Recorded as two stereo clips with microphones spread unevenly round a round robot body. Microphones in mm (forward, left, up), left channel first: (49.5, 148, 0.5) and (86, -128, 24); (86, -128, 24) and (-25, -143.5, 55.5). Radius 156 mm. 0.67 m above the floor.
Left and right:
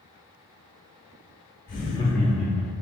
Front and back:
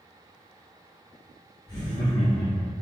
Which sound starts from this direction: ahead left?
Laughter, at 1.7 s.